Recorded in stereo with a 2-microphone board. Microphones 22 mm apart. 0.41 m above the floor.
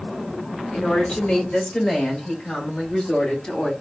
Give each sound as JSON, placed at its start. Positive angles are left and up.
{"t": 0.7, "sound": "a woman speaking", "side_deg": 45, "distance_m": 1.7}